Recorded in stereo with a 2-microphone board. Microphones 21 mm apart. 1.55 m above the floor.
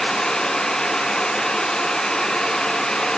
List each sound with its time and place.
Only background noise.